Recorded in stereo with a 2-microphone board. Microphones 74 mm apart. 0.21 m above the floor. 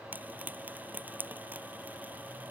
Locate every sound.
0.1 s frying: 25° right (ahead or behind)